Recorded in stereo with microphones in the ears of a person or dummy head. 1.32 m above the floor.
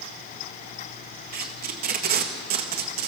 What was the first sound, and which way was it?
Tape being pulled, 40° right (ahead or behind).